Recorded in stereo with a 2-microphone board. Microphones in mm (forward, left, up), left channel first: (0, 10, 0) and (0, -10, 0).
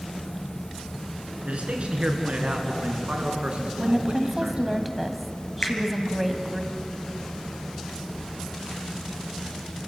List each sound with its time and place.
1.4 s a man speaking: 75° right (ahead or behind), 4.5 m; by 4.8 s 45° right (ahead or behind), 3.5 m
3.8 s a woman speaking: 5° right (ahead or behind), 2.0 m
5.6 s a finger snap: 55° left (ahead or behind), 4.5 m